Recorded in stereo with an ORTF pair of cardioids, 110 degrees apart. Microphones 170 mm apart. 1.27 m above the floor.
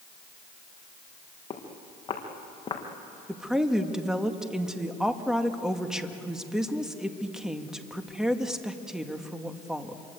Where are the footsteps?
30° left, 5 m.